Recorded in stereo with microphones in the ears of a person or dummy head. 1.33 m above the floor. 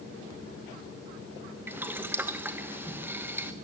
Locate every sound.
1.7 s boiling: 15° right (ahead or behind), 1.0 m